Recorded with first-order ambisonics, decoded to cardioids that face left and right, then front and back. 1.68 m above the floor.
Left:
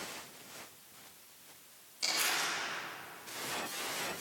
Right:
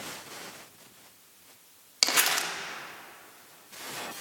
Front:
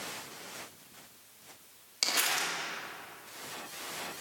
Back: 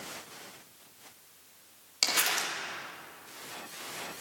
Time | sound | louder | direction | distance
2.0 | crumpling | right 7 dB, back 1 dB | 105° right | 1.6 m